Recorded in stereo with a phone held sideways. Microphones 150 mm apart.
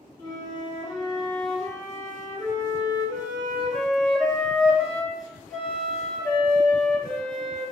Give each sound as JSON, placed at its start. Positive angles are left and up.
{"t": 0.2, "sound": "a flute", "side_deg": 25, "distance_m": 1.2}